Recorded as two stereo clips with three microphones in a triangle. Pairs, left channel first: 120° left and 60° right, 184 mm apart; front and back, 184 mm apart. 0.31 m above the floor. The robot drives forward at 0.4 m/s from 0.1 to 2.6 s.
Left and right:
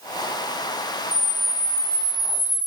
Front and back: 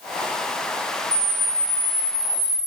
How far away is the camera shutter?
About 0.9 m.